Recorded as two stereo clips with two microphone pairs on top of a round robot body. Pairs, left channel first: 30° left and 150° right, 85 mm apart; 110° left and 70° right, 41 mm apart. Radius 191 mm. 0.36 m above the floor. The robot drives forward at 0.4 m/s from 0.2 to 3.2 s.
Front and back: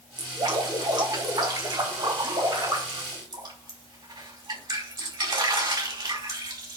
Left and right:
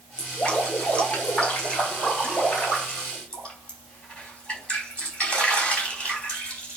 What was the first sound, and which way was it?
Dripping, 170° left.